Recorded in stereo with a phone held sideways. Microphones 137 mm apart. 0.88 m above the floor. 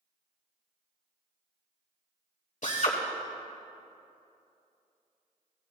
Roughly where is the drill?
Left.